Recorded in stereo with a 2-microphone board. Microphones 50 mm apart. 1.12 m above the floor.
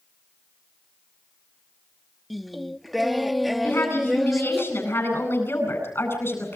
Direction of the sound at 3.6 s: 50° left (ahead or behind).